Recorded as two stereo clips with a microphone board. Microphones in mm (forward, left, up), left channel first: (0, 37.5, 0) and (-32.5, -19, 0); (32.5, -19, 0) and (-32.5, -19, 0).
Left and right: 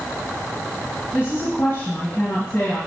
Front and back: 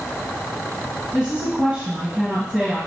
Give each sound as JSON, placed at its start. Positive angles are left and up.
{"t": 1.1, "sound": "a woman speaking", "azimuth_deg": 110, "distance_m": 2.5}